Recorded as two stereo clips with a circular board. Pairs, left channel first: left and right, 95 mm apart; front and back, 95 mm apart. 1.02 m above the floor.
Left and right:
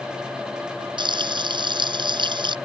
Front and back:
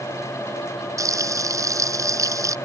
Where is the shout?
I don't hear a shout.